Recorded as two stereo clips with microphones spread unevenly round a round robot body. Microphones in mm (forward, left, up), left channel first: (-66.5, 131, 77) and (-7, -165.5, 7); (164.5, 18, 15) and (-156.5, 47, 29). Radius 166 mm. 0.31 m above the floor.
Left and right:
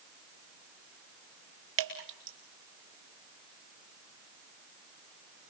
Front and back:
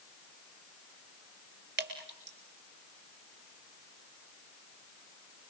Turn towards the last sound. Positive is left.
turn(degrees=-125)